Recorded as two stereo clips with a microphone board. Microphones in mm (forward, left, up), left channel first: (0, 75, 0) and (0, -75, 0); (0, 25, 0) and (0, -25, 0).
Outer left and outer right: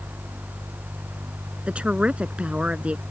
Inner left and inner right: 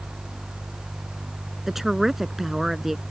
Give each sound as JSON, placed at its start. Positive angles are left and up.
{"t": 1.7, "sound": "a woman speaking", "side_deg": -5}